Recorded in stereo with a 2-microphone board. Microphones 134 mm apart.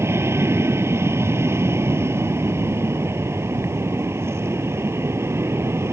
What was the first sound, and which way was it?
An aircraft, 20° right (ahead or behind).